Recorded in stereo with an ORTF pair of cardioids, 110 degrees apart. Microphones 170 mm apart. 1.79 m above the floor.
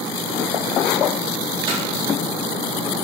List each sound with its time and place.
1.7 s hammering: 30° right, 4 m